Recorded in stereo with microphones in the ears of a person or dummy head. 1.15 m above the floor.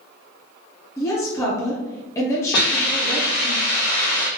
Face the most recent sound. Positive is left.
turn(degrees=65)  # may be behind; listen again after turning